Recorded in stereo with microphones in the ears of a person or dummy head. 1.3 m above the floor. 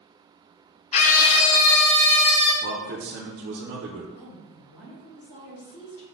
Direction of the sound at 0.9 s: 30° left (ahead or behind).